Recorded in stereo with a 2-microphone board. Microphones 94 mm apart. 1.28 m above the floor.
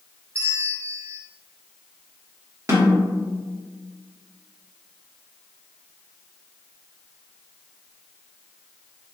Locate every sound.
0.3 s a bell: 30° right (ahead or behind), 0.5 m
2.7 s a snare drum: 35° right (ahead or behind), 0.9 m